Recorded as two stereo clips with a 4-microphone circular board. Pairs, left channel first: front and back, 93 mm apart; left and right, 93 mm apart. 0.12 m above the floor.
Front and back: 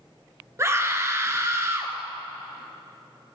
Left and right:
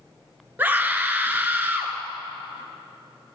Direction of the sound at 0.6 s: 145° right.